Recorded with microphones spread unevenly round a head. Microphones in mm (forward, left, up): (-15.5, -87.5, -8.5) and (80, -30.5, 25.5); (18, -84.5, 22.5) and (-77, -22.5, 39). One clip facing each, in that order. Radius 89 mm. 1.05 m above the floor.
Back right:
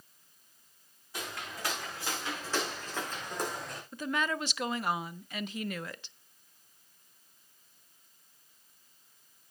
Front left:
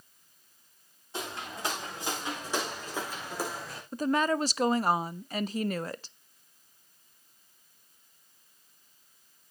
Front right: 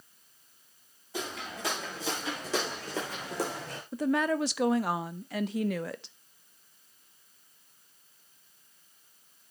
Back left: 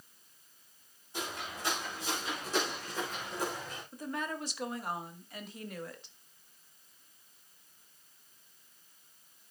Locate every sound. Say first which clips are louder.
1.1 s footsteps: front left 3 dB, front right 3 dB; 30° right, 6.5 m; by 3.8 s 55° right, 5 m
3.9 s a woman speaking: front left 6 dB, front right 11 dB; 25° right, 0.6 m